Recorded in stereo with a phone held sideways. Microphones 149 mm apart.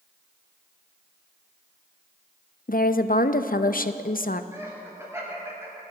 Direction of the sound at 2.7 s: 70° left (ahead or behind).